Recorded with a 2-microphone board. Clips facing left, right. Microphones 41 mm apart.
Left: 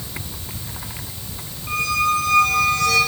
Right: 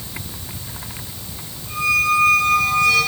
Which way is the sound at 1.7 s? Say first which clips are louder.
Right 2 dB; 60° left (ahead or behind).